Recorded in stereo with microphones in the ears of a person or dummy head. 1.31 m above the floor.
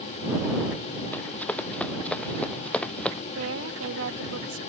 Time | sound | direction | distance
1.1 | running footsteps | 10° left (ahead or behind) | ?
3.4 | a woman speaking | 85° right | ?